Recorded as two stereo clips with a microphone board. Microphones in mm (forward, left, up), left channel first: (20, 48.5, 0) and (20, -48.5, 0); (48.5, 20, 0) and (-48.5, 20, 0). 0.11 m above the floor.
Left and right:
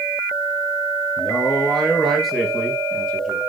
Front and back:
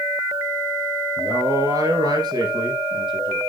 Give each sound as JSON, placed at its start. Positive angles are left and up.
{"t": 1.2, "sound": "a man speaking", "azimuth_deg": -175, "distance_m": 2.0}